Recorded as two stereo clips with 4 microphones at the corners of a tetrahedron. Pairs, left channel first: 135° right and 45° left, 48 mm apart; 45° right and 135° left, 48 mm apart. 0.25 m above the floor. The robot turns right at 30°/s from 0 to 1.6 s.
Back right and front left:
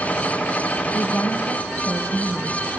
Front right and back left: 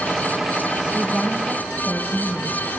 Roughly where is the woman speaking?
Behind right.